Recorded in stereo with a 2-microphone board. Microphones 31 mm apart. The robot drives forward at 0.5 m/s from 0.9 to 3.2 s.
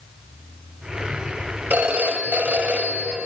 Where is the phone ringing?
70° right (ahead or behind), 1.9 m; by 3.3 s 65° right (ahead or behind), 2 m.